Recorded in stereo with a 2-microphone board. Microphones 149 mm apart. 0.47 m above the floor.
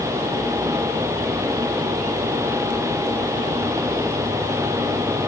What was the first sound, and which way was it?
Only background noise.